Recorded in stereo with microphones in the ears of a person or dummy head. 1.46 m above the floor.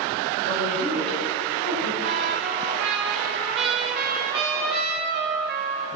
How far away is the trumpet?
About 4.5 m.